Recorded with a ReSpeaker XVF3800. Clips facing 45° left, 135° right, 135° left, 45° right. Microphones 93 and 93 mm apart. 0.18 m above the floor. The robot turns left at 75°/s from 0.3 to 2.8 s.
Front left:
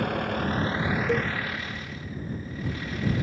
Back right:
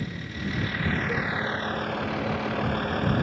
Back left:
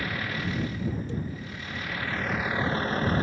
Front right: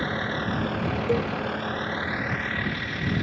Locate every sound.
0.0 s a vehicle: 15° left; by 3.2 s 170° right
1.1 s a cowbell: 20° right; by 1.3 s 35° right